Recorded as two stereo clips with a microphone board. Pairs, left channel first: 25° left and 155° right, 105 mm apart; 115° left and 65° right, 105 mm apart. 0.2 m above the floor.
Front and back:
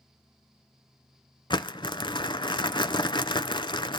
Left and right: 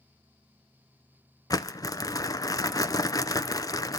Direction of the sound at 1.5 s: 60° left.